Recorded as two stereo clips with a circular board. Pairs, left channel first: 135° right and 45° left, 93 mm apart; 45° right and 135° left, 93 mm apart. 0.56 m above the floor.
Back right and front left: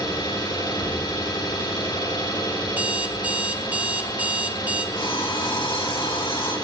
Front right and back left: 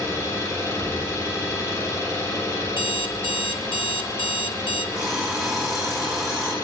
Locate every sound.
0.0 s an engine running: 95° right, 5.5 m
2.7 s an alarm clock: 30° right, 1.0 m
5.0 s an alarm clock: 140° right, 5.5 m